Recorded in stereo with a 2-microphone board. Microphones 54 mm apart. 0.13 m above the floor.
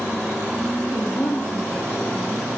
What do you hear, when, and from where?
0.8 s a woman speaking: 65° left (ahead or behind), 4 m